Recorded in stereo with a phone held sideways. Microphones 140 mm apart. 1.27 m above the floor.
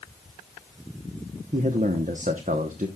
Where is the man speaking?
60° right (ahead or behind), 1.0 m.